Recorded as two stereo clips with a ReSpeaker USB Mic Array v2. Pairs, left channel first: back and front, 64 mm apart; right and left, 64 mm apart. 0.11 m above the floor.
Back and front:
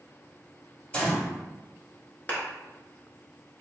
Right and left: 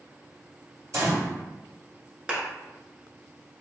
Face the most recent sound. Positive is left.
turn(degrees=155)